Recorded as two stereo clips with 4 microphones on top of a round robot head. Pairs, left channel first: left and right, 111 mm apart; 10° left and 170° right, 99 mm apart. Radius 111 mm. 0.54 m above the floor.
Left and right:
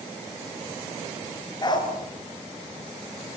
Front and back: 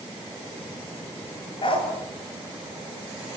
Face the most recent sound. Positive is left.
turn(degrees=40)